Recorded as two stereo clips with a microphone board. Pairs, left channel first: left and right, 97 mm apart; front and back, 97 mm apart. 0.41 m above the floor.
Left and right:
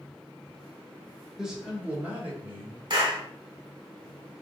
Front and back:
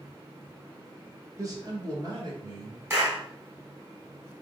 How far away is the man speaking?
About 1.2 m.